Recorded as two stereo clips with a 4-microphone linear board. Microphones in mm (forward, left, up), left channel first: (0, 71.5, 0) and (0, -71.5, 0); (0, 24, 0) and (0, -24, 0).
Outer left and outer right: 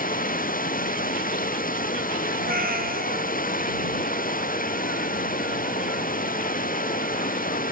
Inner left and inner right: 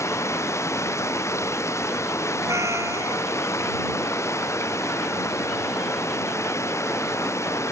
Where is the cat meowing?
80° right.